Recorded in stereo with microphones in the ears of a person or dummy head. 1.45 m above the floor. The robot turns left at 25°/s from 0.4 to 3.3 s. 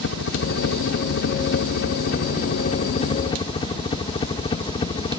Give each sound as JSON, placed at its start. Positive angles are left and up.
{"t": 0.0, "sound": "a helicopter", "azimuth_deg": 105}